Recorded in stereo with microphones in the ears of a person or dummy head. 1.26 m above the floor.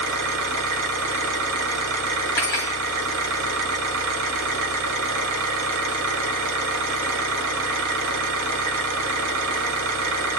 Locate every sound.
0.0 s an engine running: 75° right (ahead or behind), 1.0 m
2.4 s cutlery clinking: 20° left (ahead or behind), 1.3 m